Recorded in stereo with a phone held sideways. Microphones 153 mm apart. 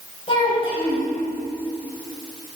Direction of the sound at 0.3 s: 35° left (ahead or behind).